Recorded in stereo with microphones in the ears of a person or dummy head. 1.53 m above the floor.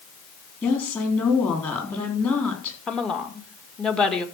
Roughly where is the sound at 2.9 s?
Centre.